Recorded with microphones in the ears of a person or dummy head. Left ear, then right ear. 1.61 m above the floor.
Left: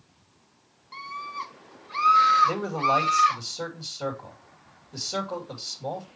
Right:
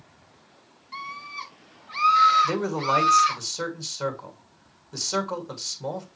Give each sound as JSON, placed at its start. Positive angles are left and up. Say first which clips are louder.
{"t": 0.9, "sound": "a scream", "louder": "even", "side_deg": 5, "distance_m": 3.0}
{"t": 2.4, "sound": "a man speaking", "louder": "left 1 dB", "side_deg": -50, "distance_m": 2.5}